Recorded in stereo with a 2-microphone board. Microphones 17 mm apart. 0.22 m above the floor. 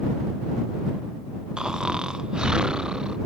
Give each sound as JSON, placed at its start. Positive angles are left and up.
{"t": 1.6, "sound": "snoring", "side_deg": -60}